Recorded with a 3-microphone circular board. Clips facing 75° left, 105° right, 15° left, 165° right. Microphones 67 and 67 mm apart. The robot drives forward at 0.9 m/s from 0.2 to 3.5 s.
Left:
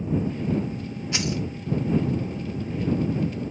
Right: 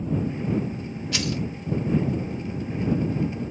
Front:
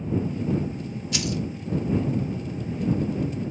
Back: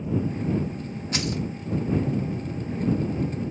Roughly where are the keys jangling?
Behind left.